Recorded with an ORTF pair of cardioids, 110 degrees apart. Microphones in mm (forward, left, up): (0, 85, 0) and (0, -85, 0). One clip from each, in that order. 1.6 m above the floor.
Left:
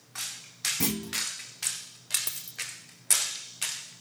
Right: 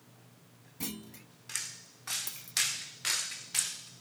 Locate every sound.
0.8 s a clunk: 60° left
2.3 s a dropped coin: 40° left